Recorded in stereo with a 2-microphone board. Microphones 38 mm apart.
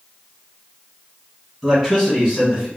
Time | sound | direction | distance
1.6 | a man speaking | 10° right (ahead or behind) | 1.8 m